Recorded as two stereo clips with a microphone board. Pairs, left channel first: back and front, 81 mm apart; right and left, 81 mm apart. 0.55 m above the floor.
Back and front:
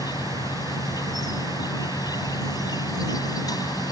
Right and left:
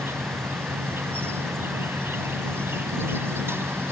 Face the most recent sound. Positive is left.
turn(degrees=150)